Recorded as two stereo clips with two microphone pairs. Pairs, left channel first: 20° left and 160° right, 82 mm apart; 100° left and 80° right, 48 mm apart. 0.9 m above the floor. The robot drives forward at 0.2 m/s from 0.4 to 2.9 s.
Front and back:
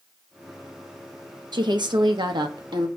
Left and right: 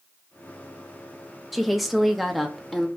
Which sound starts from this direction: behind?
A woman speaking, at 1.5 s.